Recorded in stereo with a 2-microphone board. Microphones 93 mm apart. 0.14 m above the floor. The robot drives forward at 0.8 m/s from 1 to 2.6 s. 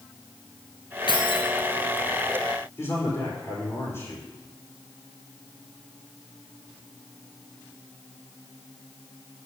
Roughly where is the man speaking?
Left.